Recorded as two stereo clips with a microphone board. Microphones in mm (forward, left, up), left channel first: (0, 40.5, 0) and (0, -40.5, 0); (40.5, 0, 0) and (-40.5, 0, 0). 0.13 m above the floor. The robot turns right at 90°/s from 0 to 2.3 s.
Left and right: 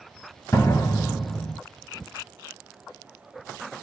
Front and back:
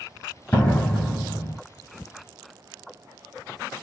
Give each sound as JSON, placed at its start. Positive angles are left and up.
{"t": 0.5, "sound": "a door slam", "azimuth_deg": 50, "distance_m": 1.1}